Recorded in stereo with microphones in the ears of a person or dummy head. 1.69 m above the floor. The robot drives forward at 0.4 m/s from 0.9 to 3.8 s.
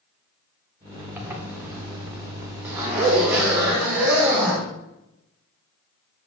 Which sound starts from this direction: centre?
A zipper, at 1.2 s.